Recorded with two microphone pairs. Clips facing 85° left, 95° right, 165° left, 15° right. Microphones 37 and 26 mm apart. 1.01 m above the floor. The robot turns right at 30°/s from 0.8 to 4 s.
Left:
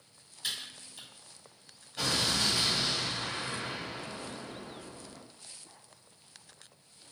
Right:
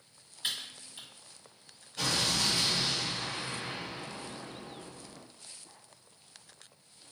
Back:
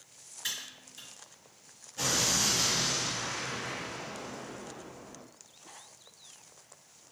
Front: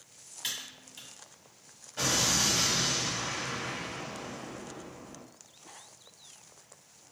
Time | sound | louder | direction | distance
0.4 | typing on a keyboard | right 1 dB, even | 35° right | 1.7 m
2.0 | an explosion | even, front 1 dB | 10° left | 1.4 m